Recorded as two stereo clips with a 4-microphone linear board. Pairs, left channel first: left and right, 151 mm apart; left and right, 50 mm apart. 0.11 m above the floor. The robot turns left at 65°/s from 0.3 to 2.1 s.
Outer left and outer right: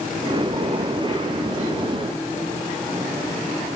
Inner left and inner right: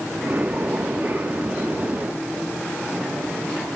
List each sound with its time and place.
Only background noise.